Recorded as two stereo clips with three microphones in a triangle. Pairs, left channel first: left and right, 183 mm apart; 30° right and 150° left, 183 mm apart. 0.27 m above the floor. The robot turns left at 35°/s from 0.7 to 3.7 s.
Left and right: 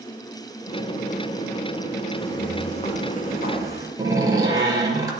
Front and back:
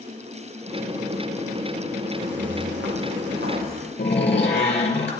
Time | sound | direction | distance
2.2 | footsteps | 165° left | 5 m
4.0 | a door slam | 20° right | 4.5 m